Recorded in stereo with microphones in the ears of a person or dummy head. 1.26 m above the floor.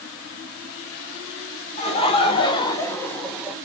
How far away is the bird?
I don't hear a bird.